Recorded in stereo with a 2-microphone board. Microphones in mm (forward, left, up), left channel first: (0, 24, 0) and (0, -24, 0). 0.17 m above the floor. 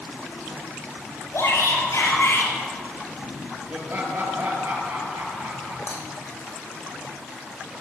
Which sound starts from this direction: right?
Laughter, at 3.7 s.